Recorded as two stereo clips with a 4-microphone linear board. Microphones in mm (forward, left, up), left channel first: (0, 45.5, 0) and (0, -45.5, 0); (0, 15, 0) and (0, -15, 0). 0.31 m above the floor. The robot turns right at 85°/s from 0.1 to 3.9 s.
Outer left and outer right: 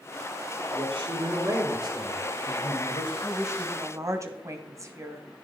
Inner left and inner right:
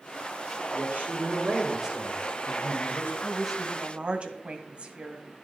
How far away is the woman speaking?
About 1.7 m.